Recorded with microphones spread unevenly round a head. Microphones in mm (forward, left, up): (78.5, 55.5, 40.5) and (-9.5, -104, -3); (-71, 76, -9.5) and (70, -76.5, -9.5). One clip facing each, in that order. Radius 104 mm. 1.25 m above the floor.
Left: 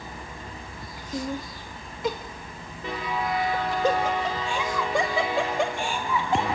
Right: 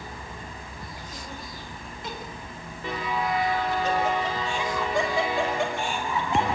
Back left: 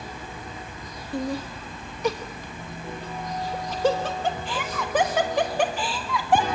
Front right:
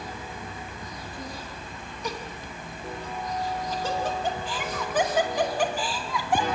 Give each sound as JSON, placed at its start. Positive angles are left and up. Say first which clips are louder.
{"t": 1.1, "sound": "laughter", "louder": "left 14 dB, back left 15 dB", "azimuth_deg": 95, "distance_m": 1.4}